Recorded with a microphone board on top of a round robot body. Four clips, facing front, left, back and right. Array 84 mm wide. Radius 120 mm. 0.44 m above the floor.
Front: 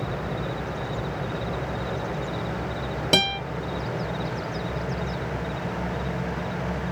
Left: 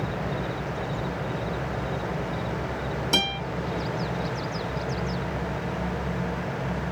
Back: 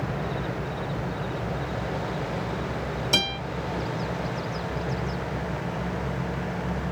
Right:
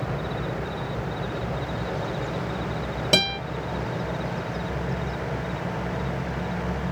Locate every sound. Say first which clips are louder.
3.1 s a guitar: right 5 dB, front 7 dB; 40° right, 1.3 m